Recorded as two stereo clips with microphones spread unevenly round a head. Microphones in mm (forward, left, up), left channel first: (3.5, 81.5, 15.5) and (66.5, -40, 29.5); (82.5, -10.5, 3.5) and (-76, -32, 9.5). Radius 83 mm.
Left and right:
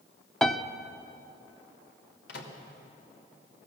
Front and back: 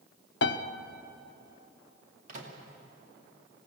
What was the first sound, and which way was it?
A piano, 35° left.